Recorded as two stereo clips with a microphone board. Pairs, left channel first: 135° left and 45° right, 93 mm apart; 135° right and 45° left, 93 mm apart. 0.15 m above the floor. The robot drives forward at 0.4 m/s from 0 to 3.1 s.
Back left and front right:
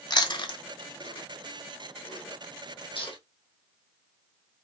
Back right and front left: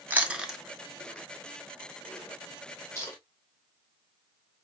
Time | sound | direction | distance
0.1 | chewing | 110° left | 0.5 m